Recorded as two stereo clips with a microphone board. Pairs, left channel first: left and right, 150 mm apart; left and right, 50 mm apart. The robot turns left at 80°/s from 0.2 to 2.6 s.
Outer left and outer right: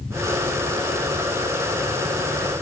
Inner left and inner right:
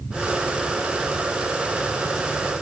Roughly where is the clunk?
I don't hear a clunk.